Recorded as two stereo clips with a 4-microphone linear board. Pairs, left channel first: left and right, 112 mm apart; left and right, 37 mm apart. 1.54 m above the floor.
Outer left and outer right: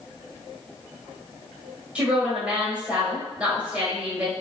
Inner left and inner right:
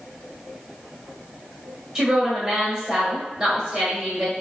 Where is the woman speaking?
10° right (ahead or behind), 1.4 m.